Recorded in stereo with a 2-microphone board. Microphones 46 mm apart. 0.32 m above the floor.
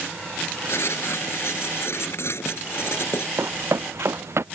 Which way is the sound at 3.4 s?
65° right (ahead or behind).